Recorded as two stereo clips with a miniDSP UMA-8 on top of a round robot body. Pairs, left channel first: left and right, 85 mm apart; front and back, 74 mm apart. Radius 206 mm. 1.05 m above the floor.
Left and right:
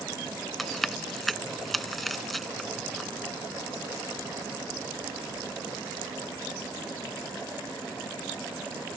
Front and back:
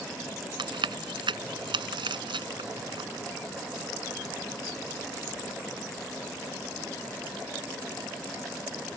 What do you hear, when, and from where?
0.6 s chewing: straight behind